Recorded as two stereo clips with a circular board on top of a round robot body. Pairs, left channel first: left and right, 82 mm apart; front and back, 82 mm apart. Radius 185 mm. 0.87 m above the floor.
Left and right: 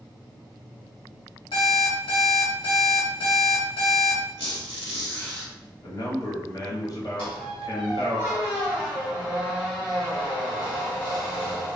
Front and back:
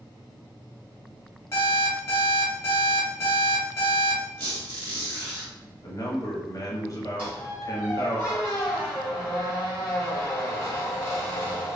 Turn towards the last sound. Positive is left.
turn(degrees=75)